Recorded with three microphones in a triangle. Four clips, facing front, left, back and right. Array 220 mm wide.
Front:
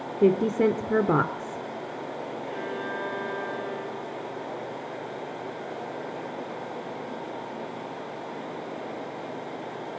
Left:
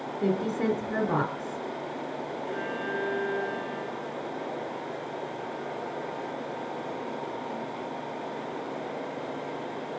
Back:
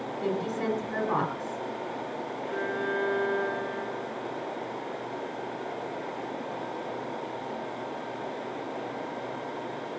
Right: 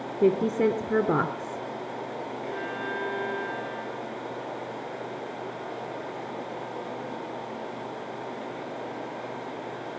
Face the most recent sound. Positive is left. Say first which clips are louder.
# even, back 4 dB
turn(degrees=-140)